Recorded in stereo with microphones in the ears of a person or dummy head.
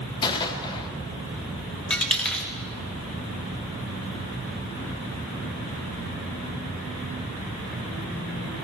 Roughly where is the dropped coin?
Centre.